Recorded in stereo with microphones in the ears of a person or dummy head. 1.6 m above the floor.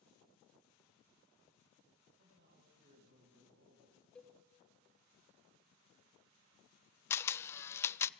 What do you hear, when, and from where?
2.2 s a man speaking: 70° right (ahead or behind), 10 m
4.2 s a cowbell: 10° left (ahead or behind), 1.3 m
7.1 s a camera shutter: 10° left (ahead or behind), 0.5 m